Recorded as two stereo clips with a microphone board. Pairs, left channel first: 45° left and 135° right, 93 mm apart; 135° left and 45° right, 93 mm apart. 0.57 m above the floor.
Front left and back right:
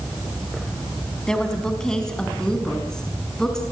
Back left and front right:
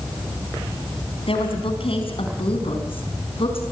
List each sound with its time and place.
1.3 s a woman speaking: 125° left, 4.5 m; by 3.6 s 130° left, 6 m